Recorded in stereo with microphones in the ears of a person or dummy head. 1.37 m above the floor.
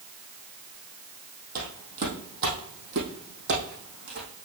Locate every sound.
1.6 s footsteps: 50° right (ahead or behind), 2.5 m; by 4.3 s 70° right (ahead or behind), 4 m